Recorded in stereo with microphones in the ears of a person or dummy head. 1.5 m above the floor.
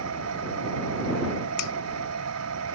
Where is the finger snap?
70° left (ahead or behind).